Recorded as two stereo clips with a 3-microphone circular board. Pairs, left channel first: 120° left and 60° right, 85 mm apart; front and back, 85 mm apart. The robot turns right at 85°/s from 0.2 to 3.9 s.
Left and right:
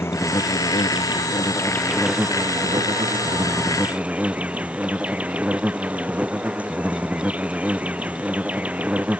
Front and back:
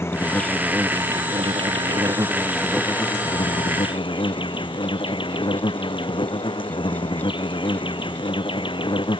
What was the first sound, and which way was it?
An insect, 60° left.